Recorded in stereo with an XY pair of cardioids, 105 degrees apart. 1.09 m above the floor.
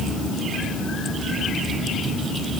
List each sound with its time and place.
Only background noise.